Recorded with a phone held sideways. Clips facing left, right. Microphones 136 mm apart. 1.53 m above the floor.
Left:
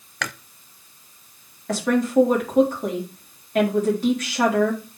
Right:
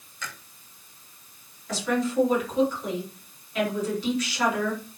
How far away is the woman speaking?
About 4 m.